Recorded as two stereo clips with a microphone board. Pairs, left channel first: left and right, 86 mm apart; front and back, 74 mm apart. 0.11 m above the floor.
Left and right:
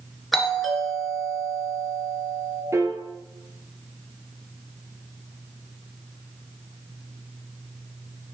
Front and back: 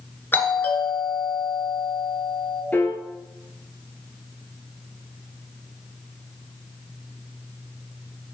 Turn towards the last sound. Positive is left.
turn(degrees=-55)